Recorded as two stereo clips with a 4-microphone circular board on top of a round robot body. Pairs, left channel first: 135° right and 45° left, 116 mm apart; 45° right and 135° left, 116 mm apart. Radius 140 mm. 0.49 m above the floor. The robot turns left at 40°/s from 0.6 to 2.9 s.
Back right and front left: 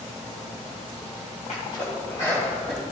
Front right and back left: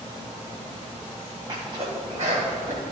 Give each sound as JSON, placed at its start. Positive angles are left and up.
{"t": 1.5, "sound": "a sneeze", "azimuth_deg": -170, "distance_m": 3.5}